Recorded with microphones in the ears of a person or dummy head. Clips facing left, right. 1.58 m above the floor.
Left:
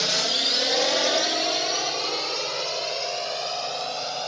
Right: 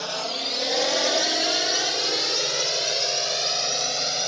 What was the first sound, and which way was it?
A drone, 30° left (ahead or behind).